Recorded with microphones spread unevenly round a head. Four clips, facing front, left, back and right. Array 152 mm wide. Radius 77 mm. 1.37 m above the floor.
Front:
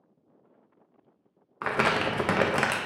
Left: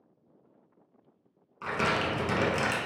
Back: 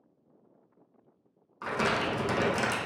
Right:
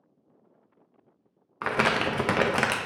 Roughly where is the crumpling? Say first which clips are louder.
Right 4 dB, front 3 dB; ahead right.